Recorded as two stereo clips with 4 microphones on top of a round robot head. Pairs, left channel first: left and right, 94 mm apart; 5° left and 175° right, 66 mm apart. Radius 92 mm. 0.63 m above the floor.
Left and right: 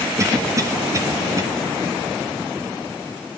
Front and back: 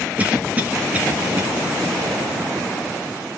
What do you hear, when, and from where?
0.2 s a cough: 120° right, 1.4 m